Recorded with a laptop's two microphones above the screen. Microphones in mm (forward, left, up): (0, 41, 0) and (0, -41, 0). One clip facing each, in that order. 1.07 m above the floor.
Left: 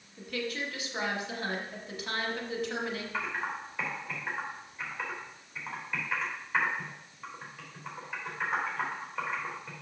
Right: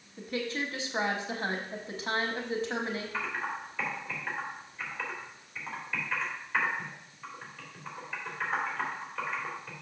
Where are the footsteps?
No footsteps in this recording.